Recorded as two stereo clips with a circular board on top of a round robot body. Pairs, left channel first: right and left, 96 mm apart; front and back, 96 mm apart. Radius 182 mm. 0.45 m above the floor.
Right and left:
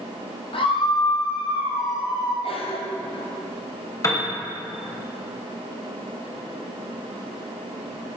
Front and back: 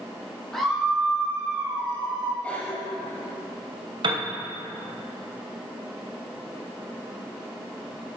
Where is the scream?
85° right, 1.8 m; by 2.3 s 150° right, 1.8 m.